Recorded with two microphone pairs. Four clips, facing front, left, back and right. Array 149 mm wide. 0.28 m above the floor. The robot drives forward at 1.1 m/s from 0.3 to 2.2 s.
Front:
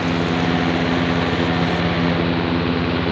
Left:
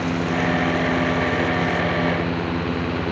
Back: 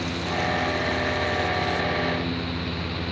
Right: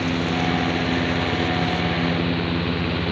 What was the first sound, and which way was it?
Only background noise.